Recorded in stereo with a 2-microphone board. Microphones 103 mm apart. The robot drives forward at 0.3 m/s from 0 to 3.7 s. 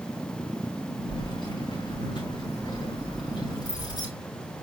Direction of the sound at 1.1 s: 50° left (ahead or behind).